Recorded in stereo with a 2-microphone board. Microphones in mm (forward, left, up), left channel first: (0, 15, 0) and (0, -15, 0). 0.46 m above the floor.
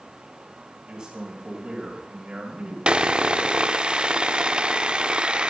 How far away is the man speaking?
About 3 m.